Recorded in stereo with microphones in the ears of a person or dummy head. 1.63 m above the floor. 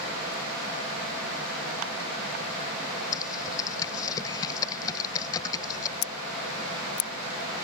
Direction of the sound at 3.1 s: 20° left (ahead or behind).